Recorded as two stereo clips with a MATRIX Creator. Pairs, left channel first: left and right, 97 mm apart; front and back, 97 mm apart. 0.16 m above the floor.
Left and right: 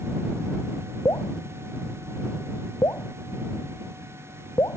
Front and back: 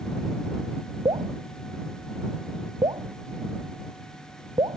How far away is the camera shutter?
I don't hear a camera shutter.